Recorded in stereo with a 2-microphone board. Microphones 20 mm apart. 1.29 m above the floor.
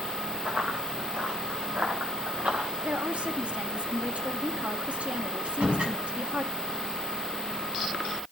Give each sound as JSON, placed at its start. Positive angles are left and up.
{"t": 0.5, "sound": "running footsteps", "side_deg": -80, "distance_m": 8.5}
{"t": 2.8, "sound": "a woman speaking", "side_deg": -70, "distance_m": 2.0}
{"t": 5.5, "sound": "a door slam", "side_deg": -75, "distance_m": 7.5}